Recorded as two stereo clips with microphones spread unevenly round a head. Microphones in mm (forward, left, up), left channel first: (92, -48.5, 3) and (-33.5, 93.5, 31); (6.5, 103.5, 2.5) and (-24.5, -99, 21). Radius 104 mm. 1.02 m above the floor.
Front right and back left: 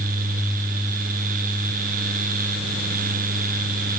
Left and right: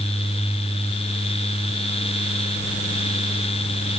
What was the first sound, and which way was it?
Only background noise.